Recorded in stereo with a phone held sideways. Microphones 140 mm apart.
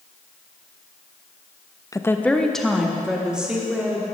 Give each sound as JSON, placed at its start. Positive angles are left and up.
{"t": 1.9, "sound": "a woman speaking", "side_deg": 25, "distance_m": 0.5}